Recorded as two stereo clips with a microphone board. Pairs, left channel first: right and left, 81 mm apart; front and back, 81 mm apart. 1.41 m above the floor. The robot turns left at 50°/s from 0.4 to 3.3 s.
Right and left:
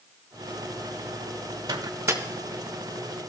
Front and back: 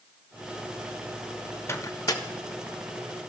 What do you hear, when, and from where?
1.7 s a microwave: 55° left, 0.6 m; by 2.2 s 30° left, 0.6 m